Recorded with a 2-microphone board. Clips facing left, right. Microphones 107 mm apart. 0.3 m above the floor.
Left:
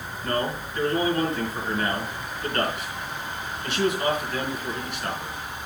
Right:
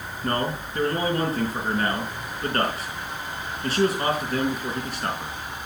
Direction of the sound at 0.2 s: 40° right (ahead or behind).